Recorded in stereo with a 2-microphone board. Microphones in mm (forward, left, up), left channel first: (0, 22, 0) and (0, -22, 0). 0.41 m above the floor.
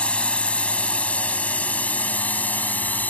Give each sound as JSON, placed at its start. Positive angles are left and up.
{"t": 0.0, "sound": "a drone", "side_deg": 25}